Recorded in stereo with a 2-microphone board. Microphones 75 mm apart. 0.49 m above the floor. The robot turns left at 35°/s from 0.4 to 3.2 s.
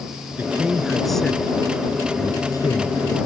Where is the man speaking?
160° right; by 3.2 s 105° left.